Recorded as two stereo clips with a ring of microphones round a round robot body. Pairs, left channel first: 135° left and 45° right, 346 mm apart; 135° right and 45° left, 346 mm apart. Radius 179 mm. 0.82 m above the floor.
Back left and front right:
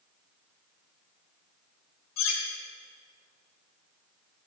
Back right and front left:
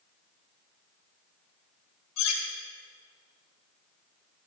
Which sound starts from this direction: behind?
Cutlery clinking, at 2.2 s.